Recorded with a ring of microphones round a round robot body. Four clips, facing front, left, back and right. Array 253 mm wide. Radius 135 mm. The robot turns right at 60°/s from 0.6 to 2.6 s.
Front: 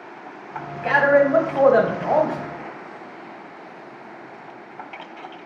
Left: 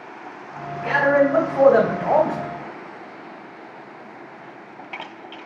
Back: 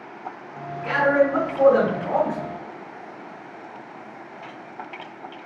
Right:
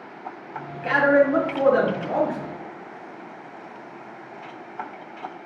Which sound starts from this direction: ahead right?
A man speaking, at 0.8 s.